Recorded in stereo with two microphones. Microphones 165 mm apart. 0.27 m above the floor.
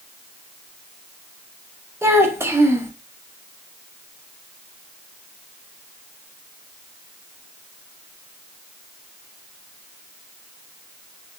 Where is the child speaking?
15° right (ahead or behind), 0.6 m.